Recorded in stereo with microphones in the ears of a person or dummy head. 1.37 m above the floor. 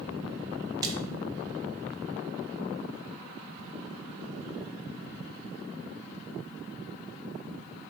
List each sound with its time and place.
0.8 s a splash: 20° right (ahead or behind), 0.6 m